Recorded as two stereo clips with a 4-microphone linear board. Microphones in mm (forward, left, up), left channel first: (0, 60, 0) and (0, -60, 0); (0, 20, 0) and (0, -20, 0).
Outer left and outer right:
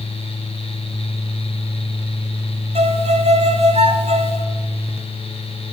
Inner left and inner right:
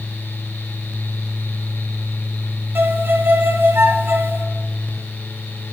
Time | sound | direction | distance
2.8 | a violin | 60° right (ahead or behind) | 0.8 m